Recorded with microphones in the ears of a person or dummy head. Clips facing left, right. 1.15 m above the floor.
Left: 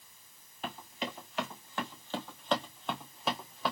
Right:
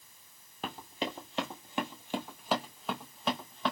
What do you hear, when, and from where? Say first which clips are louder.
0.6 s running footsteps: right 2 dB; 35° right (ahead or behind), 1.4 m; by 3.7 s centre (ahead or behind), 1.9 m